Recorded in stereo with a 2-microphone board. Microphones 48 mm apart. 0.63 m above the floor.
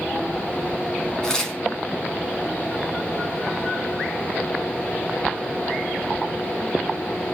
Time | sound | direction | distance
1.2 | tearing paper | 15° left (ahead or behind) | 3 m